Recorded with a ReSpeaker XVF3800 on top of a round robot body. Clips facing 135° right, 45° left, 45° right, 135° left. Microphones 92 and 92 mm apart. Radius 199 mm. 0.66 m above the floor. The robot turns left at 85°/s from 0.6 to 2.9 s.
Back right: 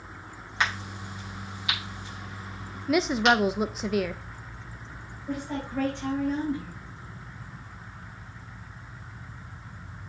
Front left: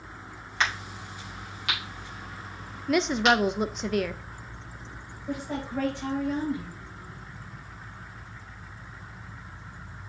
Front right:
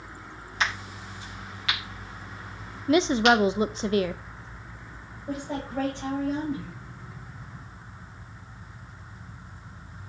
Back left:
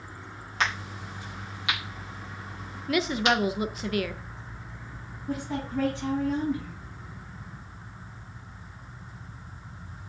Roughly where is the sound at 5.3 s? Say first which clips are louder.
Even, even; ahead right.